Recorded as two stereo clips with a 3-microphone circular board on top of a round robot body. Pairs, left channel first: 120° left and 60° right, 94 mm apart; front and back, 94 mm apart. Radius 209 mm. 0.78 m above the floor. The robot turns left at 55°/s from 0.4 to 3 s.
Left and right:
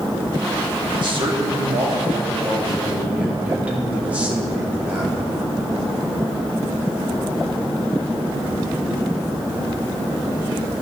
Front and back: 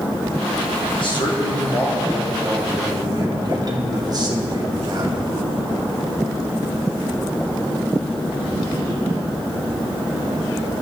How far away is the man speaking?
About 3 m.